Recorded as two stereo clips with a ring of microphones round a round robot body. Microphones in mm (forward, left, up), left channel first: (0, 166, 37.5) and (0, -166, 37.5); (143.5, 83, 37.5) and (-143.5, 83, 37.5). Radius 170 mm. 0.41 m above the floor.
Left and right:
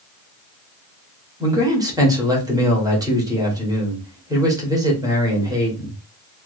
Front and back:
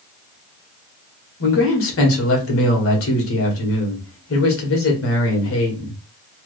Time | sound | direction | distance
1.4 | a man speaking | 15° right | 2.0 m